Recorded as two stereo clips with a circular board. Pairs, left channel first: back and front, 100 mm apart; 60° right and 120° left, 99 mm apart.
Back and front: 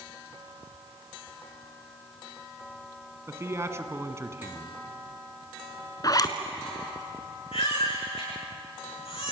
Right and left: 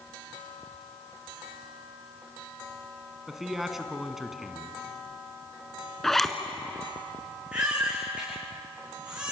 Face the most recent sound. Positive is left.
turn(degrees=-160)